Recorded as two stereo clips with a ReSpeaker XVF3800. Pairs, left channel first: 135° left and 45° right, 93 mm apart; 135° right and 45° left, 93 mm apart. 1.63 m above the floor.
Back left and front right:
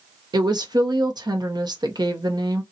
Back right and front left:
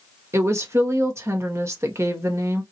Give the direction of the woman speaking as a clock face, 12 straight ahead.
12 o'clock.